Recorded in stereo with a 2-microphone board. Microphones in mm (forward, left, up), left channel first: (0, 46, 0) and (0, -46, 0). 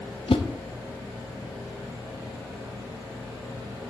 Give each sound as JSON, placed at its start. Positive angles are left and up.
{"t": 0.3, "sound": "a whoosh", "side_deg": 75, "distance_m": 0.8}